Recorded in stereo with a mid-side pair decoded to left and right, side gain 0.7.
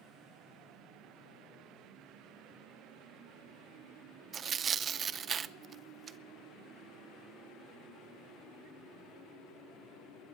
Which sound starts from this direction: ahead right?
Tearing paper, at 4.3 s.